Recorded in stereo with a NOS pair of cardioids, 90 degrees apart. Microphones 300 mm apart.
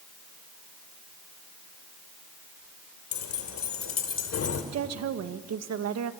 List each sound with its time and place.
3.1 s keys jangling: 70° left, 3 m; by 4.6 s 50° left, 3 m
4.7 s a woman speaking: 60° right, 1.5 m